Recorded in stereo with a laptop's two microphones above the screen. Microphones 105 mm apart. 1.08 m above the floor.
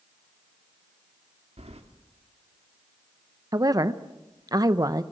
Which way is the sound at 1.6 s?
85° right.